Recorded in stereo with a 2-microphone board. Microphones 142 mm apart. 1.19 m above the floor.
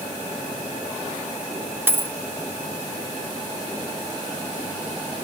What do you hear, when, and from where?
1.9 s a dropped coin: 15° right (ahead or behind), 0.7 m